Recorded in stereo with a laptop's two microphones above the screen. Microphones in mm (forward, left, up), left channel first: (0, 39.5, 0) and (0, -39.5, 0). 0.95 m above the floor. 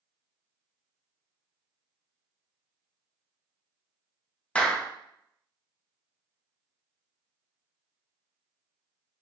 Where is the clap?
15° left (ahead or behind), 0.5 m.